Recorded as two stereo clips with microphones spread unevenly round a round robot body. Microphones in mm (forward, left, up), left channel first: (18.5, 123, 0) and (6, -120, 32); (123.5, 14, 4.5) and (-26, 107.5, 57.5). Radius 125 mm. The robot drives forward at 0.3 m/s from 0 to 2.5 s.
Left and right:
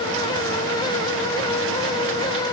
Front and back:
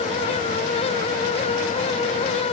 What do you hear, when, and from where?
Only background noise.